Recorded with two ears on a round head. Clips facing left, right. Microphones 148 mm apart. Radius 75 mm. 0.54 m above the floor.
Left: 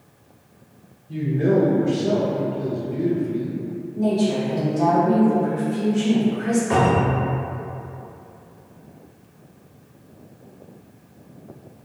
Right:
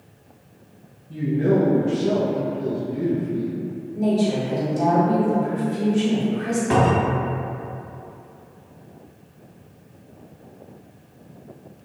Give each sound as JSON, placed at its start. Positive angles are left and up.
{"t": 1.1, "sound": "a man speaking", "side_deg": 55, "distance_m": 1.2}
{"t": 4.0, "sound": "a woman speaking", "side_deg": -20, "distance_m": 1.1}
{"t": 6.7, "sound": "a cupboard door", "side_deg": -55, "distance_m": 1.1}